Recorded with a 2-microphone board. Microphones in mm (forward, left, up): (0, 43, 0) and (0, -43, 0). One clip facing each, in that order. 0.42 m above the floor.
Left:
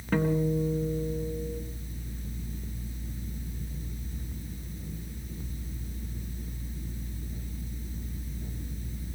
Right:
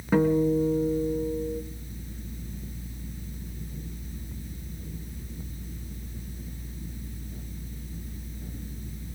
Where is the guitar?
15° right (ahead or behind), 4 m.